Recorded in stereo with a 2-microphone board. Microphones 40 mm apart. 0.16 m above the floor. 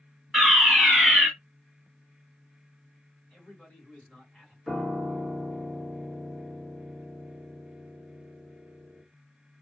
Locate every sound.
0.3 s a fire alarm: 10° right (ahead or behind), 2.5 m
3.3 s a man speaking: 20° left (ahead or behind), 1.7 m
4.7 s a piano: 5° right (ahead or behind), 1.0 m